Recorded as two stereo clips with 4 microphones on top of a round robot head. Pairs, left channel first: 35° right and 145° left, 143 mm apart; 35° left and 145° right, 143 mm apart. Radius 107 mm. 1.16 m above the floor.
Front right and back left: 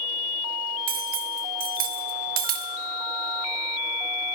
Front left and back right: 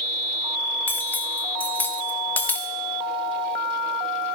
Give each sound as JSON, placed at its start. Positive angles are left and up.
{"t": 0.9, "sound": "cutlery clinking", "azimuth_deg": 115, "distance_m": 0.6}